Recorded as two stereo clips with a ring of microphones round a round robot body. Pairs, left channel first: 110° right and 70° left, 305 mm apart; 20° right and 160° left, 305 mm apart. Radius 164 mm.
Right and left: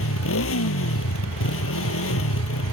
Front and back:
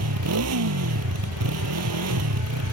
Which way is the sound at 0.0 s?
160° right.